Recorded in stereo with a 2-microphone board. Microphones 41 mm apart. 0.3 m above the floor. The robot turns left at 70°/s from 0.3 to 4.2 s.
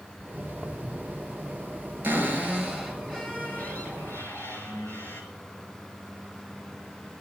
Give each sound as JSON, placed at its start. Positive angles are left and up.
{"t": 0.2, "sound": "footsteps", "side_deg": -20, "distance_m": 2.5}
{"t": 2.0, "sound": "a cupboard door", "azimuth_deg": -130, "distance_m": 6.0}